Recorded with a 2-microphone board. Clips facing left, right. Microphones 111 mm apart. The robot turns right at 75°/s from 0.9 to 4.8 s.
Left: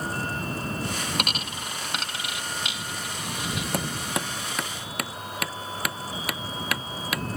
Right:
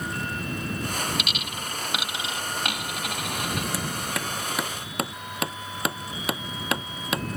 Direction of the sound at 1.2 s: 50° left (ahead or behind).